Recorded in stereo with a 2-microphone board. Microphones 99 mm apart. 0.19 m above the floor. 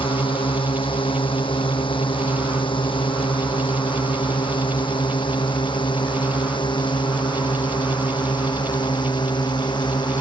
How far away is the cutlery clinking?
I don't hear cutlery clinking.